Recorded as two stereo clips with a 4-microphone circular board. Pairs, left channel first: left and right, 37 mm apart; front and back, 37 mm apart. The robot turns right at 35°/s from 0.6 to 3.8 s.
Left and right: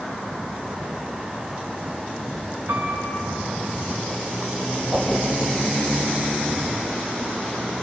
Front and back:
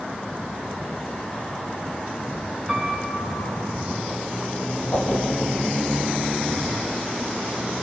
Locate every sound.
2.7 s a piano: 95° right, 7 m; by 3.5 s 70° right, 7 m
4.9 s a whoosh: 30° right, 7.5 m